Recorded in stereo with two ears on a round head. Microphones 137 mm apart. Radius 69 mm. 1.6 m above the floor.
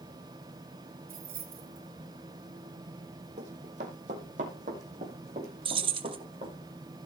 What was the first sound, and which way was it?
Keys jangling, 65° right (ahead or behind).